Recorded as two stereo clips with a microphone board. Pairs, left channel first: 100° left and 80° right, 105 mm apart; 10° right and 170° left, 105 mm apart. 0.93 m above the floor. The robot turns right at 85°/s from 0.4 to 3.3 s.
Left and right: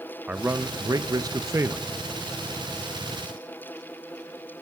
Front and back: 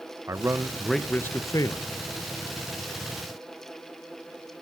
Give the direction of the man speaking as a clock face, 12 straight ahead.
5 o'clock.